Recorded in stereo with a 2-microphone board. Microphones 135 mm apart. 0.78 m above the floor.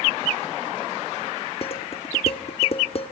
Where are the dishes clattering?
50° left (ahead or behind), 1.3 m.